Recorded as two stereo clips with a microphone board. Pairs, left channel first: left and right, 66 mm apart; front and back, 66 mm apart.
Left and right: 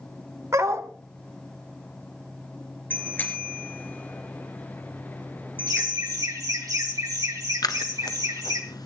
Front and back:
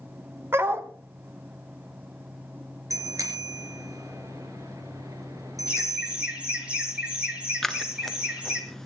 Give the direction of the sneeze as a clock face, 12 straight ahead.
No sneeze in this recording.